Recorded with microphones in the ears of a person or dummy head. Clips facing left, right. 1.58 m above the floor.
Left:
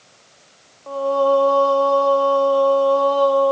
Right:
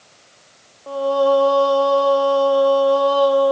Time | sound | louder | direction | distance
0.9 | singing | right 1 dB | 10° right (ahead or behind) | 0.5 m